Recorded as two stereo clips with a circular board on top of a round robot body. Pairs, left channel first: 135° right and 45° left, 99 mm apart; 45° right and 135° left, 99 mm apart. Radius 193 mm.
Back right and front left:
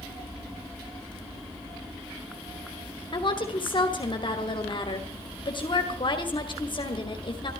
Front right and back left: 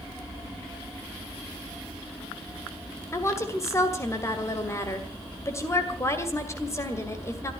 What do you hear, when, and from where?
3.1 s a woman speaking: 105° right, 2.5 m